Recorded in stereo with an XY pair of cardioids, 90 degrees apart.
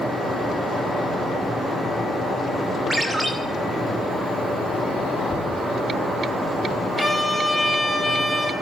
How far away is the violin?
About 2 m.